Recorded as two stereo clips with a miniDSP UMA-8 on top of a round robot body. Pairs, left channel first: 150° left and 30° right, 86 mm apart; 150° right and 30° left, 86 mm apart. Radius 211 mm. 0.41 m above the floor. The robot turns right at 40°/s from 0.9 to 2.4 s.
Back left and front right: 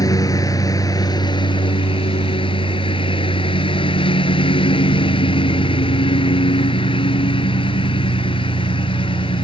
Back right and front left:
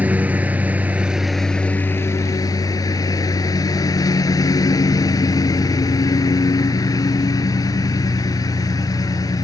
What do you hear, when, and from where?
0.0 s a lawn mower: 105° left; by 9.4 s 165° left